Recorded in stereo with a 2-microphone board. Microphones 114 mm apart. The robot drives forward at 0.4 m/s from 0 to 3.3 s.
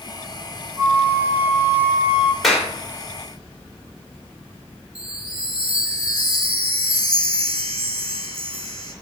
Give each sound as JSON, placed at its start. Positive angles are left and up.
{"t": 0.8, "sound": "a flute", "side_deg": -20, "distance_m": 1.0}
{"t": 2.4, "sound": "a clap", "side_deg": 0, "distance_m": 2.5}
{"t": 5.0, "sound": "a chime", "side_deg": -65, "distance_m": 1.9}